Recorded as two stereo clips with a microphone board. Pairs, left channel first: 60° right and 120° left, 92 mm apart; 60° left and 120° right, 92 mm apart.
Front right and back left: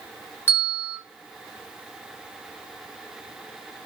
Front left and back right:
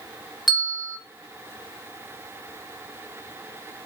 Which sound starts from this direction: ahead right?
A bell, at 0.5 s.